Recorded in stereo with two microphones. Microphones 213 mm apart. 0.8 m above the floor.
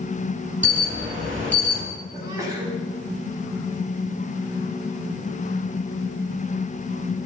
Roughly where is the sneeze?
Centre.